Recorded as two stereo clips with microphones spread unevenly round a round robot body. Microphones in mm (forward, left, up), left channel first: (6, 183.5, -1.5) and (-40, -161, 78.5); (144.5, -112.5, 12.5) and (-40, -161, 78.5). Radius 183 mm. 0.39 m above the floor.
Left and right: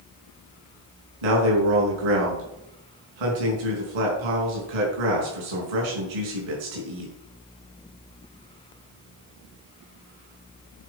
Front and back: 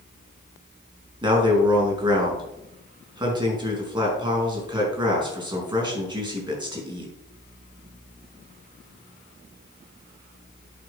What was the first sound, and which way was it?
A man speaking, 95° right.